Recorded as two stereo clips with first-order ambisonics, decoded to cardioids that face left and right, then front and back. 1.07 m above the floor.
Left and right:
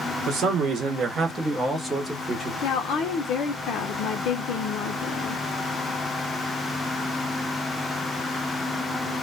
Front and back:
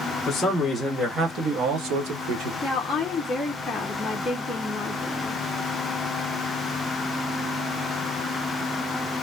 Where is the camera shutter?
No camera shutter in this recording.